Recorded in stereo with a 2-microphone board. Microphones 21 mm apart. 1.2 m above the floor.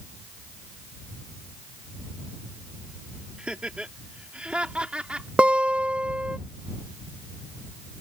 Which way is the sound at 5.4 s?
80° right.